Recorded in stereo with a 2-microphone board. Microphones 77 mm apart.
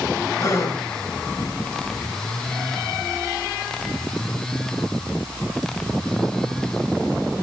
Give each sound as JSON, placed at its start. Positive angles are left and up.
{"t": 0.4, "sound": "a gasp", "side_deg": 40, "distance_m": 2.0}